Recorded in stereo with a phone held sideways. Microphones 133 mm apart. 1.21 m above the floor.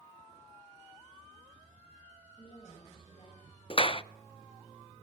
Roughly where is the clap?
Left.